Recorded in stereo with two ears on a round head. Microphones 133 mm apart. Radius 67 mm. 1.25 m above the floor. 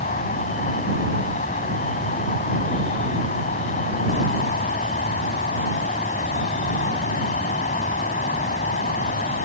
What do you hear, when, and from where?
0.0 s an insect: 50° left (ahead or behind)